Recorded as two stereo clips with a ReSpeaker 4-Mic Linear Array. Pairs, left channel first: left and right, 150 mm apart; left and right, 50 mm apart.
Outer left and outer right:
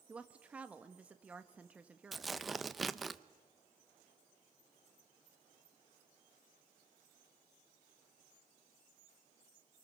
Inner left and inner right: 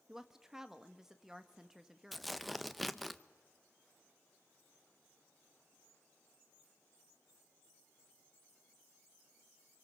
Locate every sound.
0.1 s a woman speaking: 10° right (ahead or behind), 1.4 m
2.1 s tearing paper: centre (ahead or behind), 0.8 m